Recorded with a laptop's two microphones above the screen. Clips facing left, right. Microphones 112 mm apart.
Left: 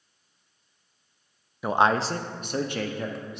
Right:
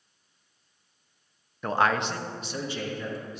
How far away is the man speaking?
About 0.6 m.